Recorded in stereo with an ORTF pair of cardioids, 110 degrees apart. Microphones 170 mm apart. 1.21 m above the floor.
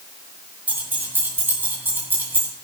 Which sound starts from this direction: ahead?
Keys jangling, at 0.7 s.